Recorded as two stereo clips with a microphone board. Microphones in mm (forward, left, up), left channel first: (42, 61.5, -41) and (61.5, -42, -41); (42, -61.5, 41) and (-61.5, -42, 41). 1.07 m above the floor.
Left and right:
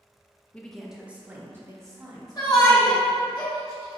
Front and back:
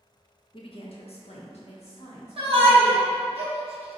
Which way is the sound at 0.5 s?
20° left.